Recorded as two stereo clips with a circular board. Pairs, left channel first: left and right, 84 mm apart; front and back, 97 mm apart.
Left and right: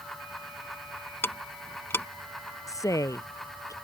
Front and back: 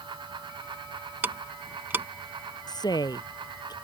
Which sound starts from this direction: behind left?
Ticking, at 1.2 s.